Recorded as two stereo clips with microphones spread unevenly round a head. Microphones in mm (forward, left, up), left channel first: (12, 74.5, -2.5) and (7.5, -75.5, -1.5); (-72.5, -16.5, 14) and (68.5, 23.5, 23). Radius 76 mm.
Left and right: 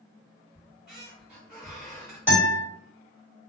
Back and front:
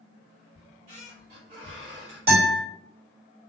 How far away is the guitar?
About 1.7 m.